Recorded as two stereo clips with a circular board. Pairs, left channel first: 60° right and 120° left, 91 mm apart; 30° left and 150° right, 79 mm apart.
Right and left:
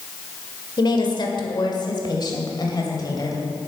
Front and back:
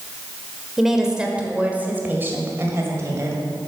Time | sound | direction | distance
0.8 | a woman speaking | 65° right | 1.6 m